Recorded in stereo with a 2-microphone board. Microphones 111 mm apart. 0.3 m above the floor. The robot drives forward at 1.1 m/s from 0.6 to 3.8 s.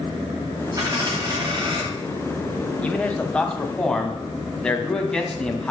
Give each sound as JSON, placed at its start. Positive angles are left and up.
{"t": 0.8, "sound": "a dropped coin", "side_deg": -35, "distance_m": 6.0}
{"t": 2.8, "sound": "a man speaking", "side_deg": 15, "distance_m": 1.6}